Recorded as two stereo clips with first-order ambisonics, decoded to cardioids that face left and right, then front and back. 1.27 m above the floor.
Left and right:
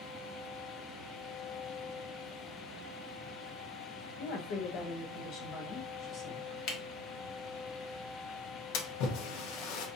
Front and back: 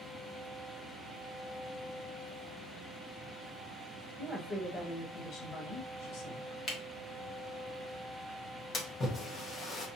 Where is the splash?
70° left, 0.9 m.